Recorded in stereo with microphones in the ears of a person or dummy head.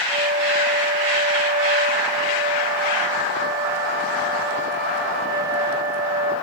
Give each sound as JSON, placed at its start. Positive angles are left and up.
{"t": 0.1, "sound": "a flute", "side_deg": -10, "distance_m": 1.3}